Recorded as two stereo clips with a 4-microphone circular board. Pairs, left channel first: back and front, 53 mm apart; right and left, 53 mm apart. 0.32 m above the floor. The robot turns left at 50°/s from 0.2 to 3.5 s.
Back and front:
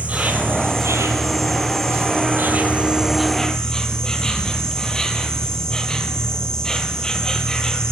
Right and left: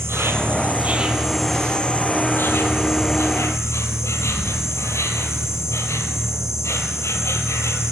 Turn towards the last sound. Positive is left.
turn(degrees=-105)